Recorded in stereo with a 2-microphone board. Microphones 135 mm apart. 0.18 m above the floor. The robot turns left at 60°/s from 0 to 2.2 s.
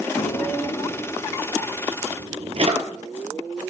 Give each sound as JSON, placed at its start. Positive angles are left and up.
{"t": 0.2, "sound": "a drawer", "side_deg": 70, "distance_m": 1.0}